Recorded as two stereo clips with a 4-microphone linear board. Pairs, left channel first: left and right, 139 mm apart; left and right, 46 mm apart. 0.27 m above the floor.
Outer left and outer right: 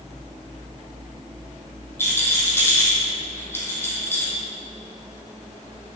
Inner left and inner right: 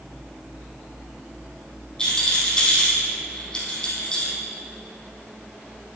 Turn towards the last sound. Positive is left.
turn(degrees=15)  # may be behind; listen again after turning